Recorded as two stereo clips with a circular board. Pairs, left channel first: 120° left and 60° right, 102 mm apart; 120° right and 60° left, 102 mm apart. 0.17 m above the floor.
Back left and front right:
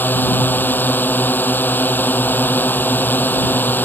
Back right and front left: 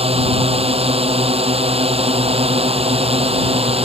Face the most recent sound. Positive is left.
turn(degrees=50)